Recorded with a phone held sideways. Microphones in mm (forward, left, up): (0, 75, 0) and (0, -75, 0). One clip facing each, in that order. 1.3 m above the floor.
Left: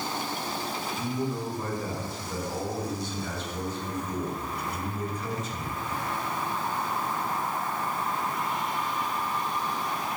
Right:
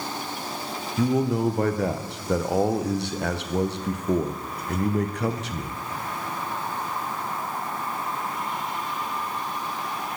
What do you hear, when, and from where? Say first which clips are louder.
1.0 s a man speaking: right 11 dB; 75° right (ahead or behind), 0.5 m